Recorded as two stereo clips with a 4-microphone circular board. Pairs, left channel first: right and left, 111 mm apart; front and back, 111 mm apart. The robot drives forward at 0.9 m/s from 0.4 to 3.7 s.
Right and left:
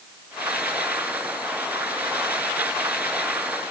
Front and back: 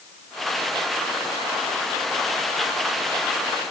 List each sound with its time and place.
Only background noise.